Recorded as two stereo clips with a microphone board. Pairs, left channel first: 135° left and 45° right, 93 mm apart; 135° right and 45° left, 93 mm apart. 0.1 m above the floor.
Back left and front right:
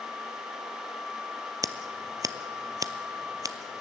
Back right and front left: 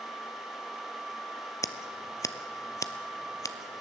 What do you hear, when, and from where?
1.6 s scissors: 90° right, 0.6 m